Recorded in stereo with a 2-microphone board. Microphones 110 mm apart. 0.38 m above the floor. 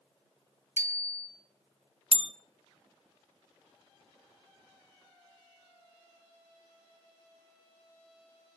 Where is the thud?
No thud in this recording.